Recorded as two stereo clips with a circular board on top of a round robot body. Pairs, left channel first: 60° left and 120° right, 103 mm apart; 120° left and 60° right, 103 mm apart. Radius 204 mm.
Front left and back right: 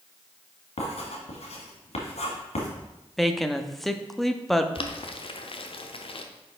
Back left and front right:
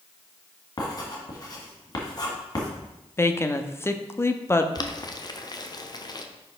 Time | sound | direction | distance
0.8 | writing | 70° left | 1.8 m
3.2 | a woman speaking | 150° left | 0.9 m
4.8 | boiling | 75° left | 0.9 m